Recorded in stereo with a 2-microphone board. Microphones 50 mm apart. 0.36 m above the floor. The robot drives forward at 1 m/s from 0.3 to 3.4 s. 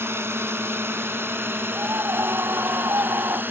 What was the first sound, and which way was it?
A drone, 60° right (ahead or behind).